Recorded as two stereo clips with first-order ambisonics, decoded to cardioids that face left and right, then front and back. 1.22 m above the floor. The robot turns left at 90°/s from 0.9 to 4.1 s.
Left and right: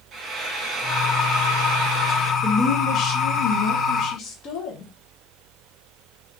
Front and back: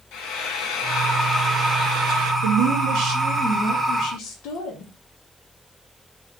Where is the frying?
30° right, 1.4 m; by 2.3 s 155° right, 1.4 m.